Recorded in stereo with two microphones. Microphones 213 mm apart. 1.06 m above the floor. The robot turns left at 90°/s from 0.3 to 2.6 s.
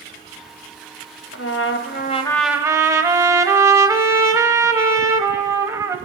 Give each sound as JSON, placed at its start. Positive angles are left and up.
{"t": 1.3, "sound": "a trumpet", "azimuth_deg": 100, "distance_m": 0.8}